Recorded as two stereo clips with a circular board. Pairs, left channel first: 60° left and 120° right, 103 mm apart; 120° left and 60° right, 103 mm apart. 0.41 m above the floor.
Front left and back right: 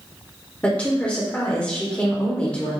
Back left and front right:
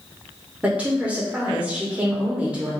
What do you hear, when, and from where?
0.6 s a woman speaking: straight ahead, 0.9 m